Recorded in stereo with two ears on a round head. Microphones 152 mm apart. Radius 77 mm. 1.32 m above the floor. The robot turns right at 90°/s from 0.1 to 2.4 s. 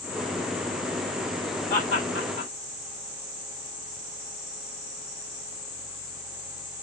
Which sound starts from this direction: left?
Laughter, at 1.7 s.